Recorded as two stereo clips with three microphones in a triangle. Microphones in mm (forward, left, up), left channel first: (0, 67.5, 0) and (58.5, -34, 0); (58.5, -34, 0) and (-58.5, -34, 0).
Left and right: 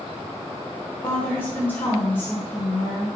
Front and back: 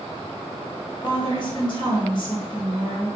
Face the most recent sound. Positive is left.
turn(degrees=45)